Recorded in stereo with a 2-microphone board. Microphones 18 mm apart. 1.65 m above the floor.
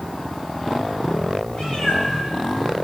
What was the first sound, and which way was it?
A cat meowing, 50° left (ahead or behind).